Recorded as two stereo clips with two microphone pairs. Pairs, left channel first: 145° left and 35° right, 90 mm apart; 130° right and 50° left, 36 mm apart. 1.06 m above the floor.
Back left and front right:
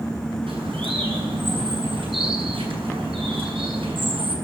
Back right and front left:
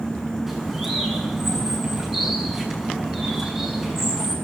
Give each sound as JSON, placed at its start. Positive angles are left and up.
{"t": 0.5, "sound": "a bird", "azimuth_deg": -35, "distance_m": 6.0}